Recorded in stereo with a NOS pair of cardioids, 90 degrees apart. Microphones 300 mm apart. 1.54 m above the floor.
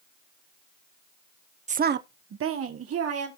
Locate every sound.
1.7 s a woman speaking: 25° right, 0.5 m; by 3.3 s 55° right, 1.8 m